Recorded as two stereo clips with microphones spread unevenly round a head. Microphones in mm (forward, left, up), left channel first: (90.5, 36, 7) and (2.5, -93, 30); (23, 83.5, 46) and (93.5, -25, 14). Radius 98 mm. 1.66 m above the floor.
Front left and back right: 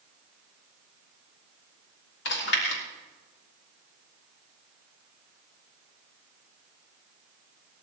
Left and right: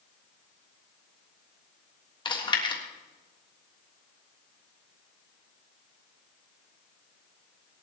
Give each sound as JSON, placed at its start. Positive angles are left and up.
{"t": 2.2, "sound": "chewing", "azimuth_deg": 70, "distance_m": 3.0}